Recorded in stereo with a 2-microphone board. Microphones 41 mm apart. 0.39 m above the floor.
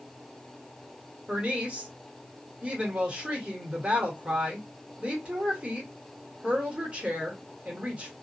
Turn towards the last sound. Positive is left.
turn(degrees=-30)  # may be behind; listen again after turning